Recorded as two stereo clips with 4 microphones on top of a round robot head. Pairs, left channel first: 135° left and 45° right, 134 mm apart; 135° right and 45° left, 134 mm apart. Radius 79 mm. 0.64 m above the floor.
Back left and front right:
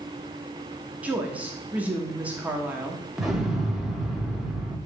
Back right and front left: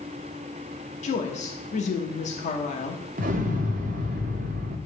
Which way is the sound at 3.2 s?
40° left.